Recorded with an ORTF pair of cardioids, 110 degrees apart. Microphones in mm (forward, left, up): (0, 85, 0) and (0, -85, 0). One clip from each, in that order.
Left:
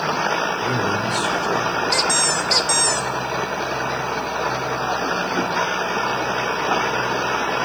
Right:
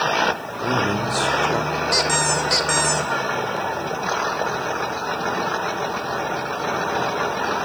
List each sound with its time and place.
0.6 s a man speaking: 30° right, 4.5 m
1.9 s a squeak: straight ahead, 1.7 m